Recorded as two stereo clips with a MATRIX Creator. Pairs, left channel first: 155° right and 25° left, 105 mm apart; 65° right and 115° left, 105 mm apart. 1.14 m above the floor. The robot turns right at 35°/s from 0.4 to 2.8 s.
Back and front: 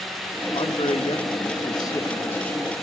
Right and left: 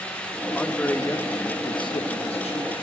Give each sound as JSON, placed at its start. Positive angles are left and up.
{"t": 0.6, "sound": "a man speaking", "azimuth_deg": -150, "distance_m": 1.8}